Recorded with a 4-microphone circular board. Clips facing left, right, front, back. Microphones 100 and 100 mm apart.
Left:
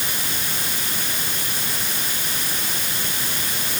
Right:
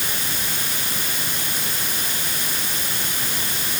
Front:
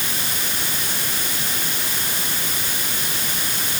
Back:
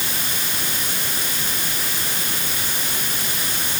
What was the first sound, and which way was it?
Only background noise.